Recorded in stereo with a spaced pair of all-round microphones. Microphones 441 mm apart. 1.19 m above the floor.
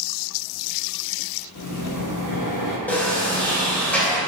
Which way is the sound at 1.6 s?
40° left (ahead or behind).